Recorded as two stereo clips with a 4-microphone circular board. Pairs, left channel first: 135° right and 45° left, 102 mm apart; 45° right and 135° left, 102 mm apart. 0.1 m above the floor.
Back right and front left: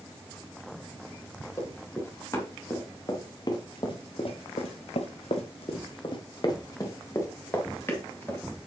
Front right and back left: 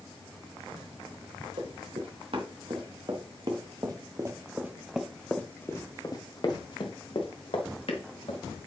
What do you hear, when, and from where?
1.6 s running footsteps: 160° left, 4 m; by 8.4 s 65° right, 3.5 m